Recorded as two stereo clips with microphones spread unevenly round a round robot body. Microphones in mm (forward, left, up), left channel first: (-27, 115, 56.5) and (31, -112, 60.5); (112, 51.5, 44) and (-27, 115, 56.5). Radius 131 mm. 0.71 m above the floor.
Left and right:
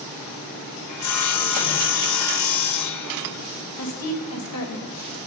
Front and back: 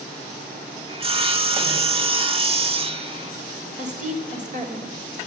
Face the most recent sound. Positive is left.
turn(degrees=120)